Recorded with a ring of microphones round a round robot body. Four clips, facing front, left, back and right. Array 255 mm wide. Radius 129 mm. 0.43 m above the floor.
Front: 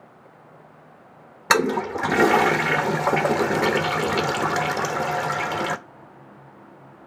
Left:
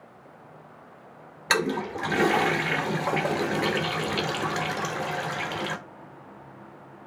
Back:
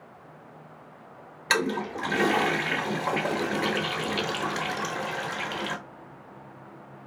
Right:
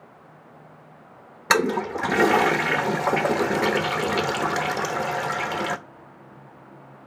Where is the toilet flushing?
30° right, 1.0 m.